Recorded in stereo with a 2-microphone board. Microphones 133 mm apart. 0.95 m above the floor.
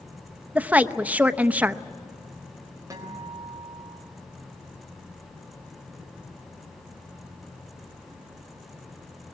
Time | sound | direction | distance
0.6 | a woman speaking | 10° right (ahead or behind) | 0.7 m
2.9 | a guitar | 25° right (ahead or behind) | 4 m